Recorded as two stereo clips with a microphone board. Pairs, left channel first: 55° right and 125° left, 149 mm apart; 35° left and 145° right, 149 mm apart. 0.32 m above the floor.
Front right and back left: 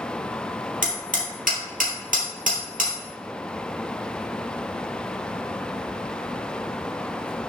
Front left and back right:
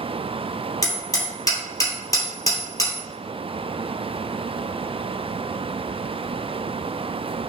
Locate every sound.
0.8 s hammering: 100° left, 2.5 m